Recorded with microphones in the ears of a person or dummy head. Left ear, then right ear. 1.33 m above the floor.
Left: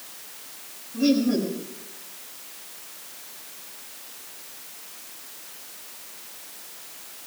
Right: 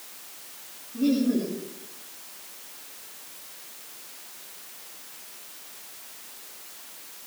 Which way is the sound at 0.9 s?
30° left (ahead or behind).